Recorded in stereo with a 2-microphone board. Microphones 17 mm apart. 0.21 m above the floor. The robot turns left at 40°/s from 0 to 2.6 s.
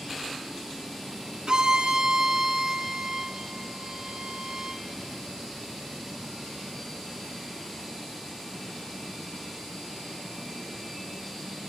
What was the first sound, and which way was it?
A violin, 110° right.